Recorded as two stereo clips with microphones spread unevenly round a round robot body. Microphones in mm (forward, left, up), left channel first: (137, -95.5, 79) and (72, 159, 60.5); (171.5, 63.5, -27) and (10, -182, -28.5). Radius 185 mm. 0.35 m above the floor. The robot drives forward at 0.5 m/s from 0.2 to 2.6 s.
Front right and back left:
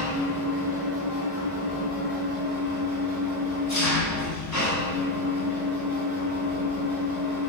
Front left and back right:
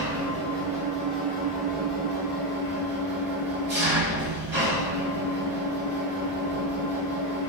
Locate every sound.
0.0 s an engine running: 85° right, 2 m; by 7.5 s 115° right, 2.5 m